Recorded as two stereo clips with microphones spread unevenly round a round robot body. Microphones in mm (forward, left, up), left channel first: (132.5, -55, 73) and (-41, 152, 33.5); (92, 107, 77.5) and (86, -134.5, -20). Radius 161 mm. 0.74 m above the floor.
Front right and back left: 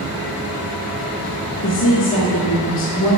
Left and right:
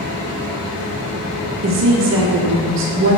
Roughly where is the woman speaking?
Right.